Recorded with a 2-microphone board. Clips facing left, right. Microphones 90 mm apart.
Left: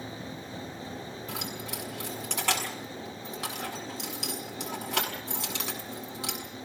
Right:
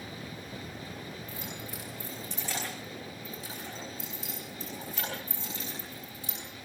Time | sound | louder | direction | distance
1.3 | keys jangling | left 4 dB | 90° left | 6 m